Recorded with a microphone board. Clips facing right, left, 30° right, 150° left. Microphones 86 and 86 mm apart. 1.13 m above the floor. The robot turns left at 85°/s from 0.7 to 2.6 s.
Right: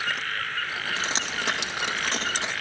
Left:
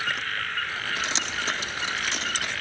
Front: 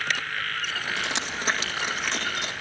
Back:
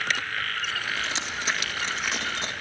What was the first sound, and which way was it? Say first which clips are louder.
Dripping: even, front 1 dB; 30° right.